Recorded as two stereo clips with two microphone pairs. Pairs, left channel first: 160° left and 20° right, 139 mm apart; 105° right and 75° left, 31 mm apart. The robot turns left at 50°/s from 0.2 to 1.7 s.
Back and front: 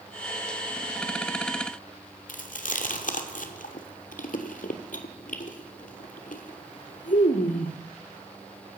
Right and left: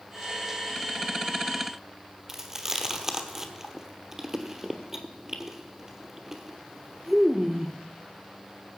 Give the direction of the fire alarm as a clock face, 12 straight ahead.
No fire alarm in this recording.